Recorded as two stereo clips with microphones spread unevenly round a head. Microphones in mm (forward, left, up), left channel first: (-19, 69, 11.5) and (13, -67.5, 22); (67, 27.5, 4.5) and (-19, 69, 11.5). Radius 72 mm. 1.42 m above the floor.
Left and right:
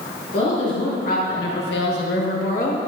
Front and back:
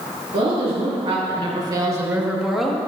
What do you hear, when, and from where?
0.3 s a woman speaking: 150° left, 3 m; by 2.8 s 55° left, 2 m